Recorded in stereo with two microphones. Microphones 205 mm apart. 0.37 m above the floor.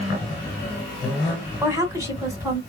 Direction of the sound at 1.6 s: 15° right (ahead or behind).